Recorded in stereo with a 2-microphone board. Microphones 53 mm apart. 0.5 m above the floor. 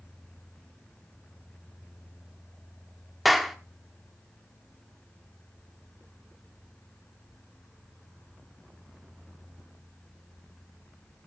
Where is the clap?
Centre (ahead or behind), 1.1 m.